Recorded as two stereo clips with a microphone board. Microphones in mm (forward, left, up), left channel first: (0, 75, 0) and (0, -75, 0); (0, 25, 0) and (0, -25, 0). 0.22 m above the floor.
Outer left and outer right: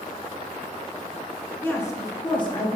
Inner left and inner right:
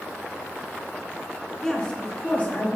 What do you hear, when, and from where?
1.6 s a woman speaking: 15° left (ahead or behind), 2.5 m; by 2.8 s 40° left (ahead or behind), 3 m